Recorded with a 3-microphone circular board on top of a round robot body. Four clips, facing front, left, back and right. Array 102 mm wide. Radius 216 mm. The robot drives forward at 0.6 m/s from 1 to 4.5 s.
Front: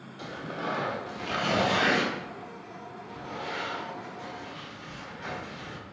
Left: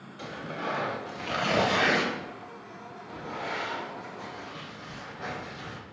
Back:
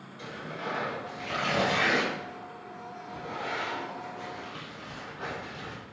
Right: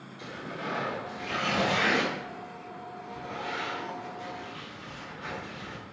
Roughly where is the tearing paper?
Ahead left.